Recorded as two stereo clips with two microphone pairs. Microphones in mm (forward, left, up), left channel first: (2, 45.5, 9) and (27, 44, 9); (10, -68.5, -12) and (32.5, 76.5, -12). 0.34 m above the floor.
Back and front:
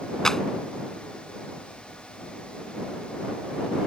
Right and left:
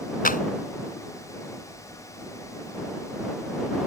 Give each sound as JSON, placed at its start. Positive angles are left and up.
{"t": 0.2, "sound": "a clap", "azimuth_deg": -115}